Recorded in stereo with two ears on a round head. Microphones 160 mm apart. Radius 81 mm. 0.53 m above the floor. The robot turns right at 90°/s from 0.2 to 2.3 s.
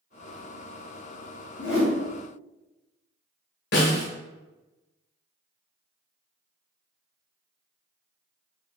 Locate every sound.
1.6 s a whoosh: 65° left, 1.7 m; by 1.9 s 100° left, 1.7 m
3.7 s a snare drum: 70° left (ahead or behind), 1.8 m